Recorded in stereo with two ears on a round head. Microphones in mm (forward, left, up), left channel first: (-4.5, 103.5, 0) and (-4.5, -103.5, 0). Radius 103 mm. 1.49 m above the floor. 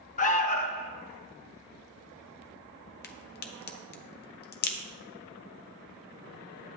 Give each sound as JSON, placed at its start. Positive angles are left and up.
{"t": 0.2, "sound": "an alarm", "side_deg": 35, "distance_m": 0.6}
{"t": 3.0, "sound": "a crack", "side_deg": 45, "distance_m": 0.9}